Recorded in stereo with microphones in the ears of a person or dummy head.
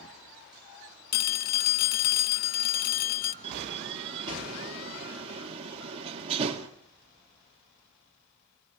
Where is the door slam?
30° right (ahead or behind), 2 m.